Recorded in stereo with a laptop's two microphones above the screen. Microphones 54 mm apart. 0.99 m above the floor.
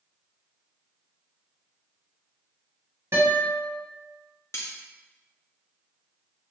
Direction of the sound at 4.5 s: 65° left (ahead or behind).